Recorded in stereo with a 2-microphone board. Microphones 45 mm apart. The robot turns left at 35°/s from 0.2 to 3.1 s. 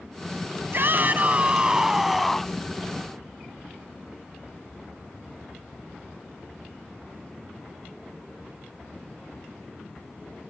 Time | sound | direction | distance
0.7 | a shout | 130° right | ?